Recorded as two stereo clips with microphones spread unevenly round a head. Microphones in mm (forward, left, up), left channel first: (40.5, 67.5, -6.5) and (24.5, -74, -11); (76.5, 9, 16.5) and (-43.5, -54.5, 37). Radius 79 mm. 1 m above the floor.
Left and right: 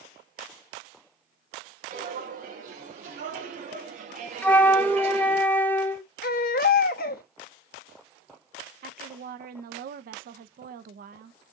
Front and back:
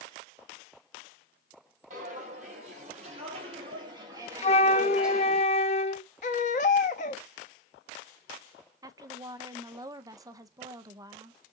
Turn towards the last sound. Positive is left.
turn(degrees=-85)